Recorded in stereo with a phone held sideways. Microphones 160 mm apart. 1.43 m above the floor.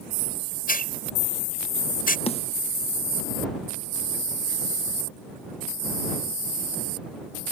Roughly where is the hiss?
Left.